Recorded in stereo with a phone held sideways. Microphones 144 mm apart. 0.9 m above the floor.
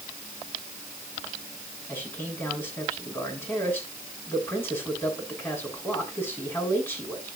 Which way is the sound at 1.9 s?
15° left (ahead or behind).